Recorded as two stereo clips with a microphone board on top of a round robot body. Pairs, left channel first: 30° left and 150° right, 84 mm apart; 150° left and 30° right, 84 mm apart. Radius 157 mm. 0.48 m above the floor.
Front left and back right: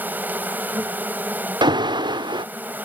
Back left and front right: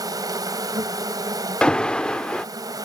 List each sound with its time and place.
0.0 s an insect: 80° right
1.6 s an alarm: 130° right